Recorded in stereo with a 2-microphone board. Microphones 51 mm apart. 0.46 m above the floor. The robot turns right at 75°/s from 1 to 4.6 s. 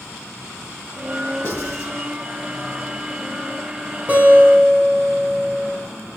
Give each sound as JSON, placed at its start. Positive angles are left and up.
{"t": 1.4, "sound": "writing", "side_deg": 60, "distance_m": 2.5}
{"t": 4.1, "sound": "a guitar", "azimuth_deg": -30, "distance_m": 3.0}